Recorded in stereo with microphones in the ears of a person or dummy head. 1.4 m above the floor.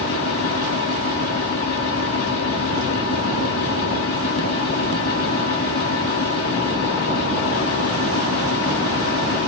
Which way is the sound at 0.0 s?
70° left (ahead or behind).